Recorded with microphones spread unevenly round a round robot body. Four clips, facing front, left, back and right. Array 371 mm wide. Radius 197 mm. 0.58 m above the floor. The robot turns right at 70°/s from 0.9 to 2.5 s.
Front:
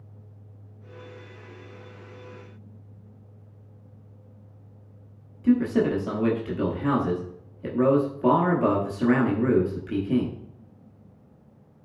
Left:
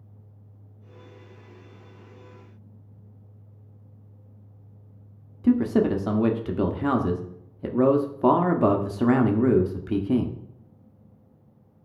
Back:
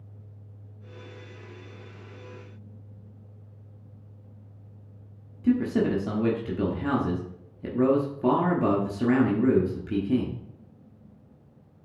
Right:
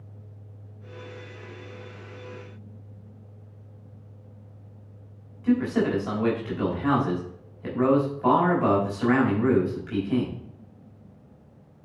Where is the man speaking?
100° left, 1.1 m.